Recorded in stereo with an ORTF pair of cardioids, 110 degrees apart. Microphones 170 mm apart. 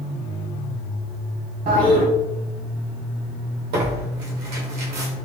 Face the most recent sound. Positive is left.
turn(degrees=-70)